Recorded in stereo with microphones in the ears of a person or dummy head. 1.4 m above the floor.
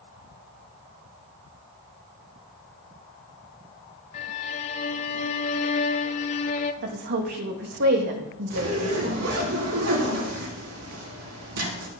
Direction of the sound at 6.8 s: 55° right (ahead or behind).